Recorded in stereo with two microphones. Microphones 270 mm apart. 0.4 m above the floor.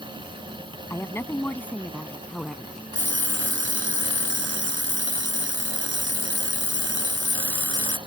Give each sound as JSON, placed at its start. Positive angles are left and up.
{"t": 0.9, "sound": "a woman speaking", "side_deg": 10}
{"t": 2.9, "sound": "an alarm clock", "side_deg": -45}